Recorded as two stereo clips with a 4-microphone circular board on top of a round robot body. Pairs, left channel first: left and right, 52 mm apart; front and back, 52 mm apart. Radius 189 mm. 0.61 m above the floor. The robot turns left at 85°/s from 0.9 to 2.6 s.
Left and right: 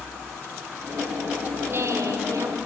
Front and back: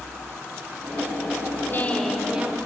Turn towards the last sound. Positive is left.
turn(degrees=-125)